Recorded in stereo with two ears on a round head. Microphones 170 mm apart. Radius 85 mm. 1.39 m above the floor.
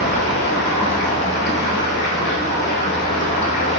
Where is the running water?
35° left (ahead or behind), 1.5 m.